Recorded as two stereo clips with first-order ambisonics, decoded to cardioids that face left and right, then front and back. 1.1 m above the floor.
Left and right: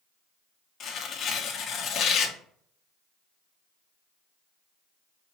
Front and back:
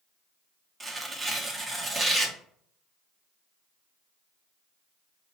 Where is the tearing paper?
115° left, 0.6 m.